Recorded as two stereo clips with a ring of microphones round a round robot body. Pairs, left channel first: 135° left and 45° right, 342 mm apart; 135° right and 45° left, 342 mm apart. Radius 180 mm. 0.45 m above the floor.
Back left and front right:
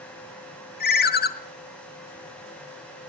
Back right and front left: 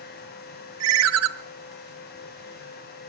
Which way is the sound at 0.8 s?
80° left.